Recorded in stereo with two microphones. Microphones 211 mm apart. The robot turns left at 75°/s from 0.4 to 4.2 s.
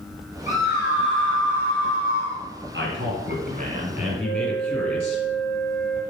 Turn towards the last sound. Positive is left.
turn(degrees=-10)  # may be behind; listen again after turning